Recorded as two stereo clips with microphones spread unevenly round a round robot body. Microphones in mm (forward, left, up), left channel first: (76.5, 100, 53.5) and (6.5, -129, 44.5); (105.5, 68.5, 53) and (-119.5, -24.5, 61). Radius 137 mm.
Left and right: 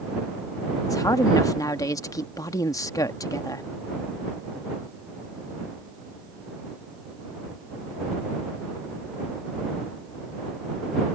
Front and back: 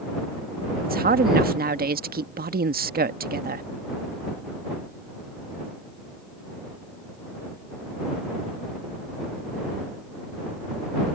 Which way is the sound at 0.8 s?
150° left.